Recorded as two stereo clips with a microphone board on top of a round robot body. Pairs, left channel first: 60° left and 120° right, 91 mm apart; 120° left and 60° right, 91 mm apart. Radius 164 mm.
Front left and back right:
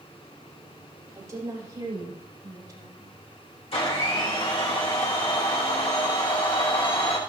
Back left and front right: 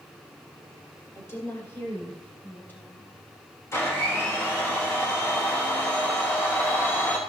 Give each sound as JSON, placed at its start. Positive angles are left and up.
{"t": 1.1, "sound": "a woman speaking", "azimuth_deg": 180, "distance_m": 5.5}
{"t": 3.7, "sound": "a blender", "azimuth_deg": 60, "distance_m": 3.5}